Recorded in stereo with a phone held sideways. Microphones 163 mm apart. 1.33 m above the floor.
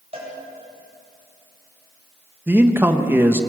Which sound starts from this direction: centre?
A man speaking, at 2.5 s.